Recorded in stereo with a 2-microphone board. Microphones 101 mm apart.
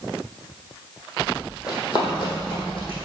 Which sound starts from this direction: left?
Running footsteps, at 1.7 s.